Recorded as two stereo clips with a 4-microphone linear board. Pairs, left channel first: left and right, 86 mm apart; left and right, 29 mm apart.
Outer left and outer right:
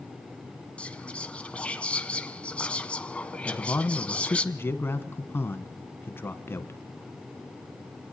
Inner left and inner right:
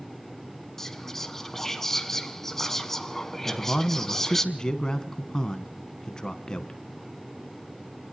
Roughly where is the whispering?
Centre.